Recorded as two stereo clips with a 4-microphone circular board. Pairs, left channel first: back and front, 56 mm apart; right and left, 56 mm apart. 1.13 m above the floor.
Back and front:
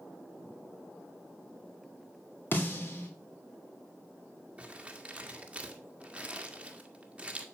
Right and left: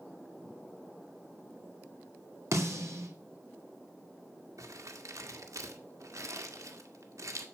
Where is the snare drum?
125° left, 3 m.